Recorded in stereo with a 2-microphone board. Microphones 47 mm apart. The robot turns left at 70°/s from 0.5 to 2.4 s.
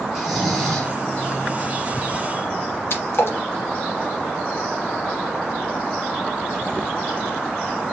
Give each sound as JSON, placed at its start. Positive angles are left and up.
{"t": 0.1, "sound": "snoring", "azimuth_deg": -175, "distance_m": 1.0}
{"t": 2.9, "sound": "a splash", "side_deg": 60, "distance_m": 1.1}